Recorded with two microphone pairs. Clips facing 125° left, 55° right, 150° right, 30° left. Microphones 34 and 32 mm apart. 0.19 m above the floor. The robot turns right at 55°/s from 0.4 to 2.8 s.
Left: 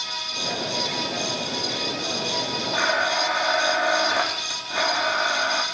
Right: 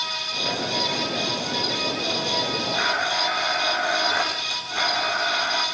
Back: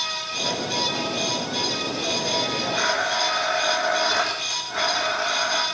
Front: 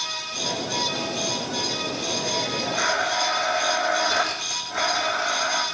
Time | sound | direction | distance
2.7 | a blender | 130° left | 4 m